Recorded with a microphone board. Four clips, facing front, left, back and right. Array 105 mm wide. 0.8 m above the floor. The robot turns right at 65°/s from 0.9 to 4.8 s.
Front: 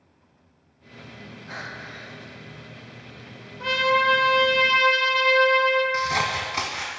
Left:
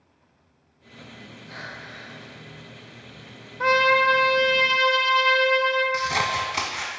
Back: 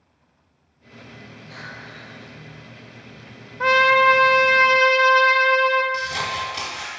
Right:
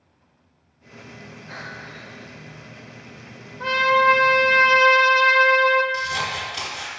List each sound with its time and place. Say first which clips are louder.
1.5 s breathing: right 2 dB, front 2 dB; 35° right, 1.0 m; by 2.3 s 25° left, 1.0 m
3.6 s a trumpet: right 1 dB, back 6 dB; 150° left, 0.5 m; by 5.8 s 130° right, 0.5 m
5.9 s scissors: left 2 dB, front 2 dB; 55° left, 1.0 m